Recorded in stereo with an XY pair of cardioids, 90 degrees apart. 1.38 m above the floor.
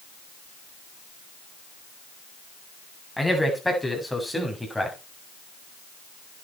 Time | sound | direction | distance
3.2 | a man speaking | 10° left | 8.5 m